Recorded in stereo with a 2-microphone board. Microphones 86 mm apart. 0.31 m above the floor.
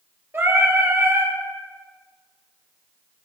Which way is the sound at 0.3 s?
25° right (ahead or behind).